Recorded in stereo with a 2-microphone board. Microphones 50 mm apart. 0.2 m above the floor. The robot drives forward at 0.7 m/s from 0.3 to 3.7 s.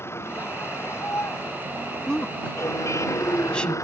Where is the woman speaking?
10° left (ahead or behind); by 3.8 s 20° left (ahead or behind).